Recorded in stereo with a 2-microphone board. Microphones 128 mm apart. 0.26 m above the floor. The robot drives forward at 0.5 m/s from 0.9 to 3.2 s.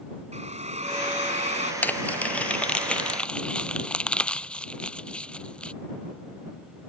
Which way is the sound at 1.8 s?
15° left (ahead or behind).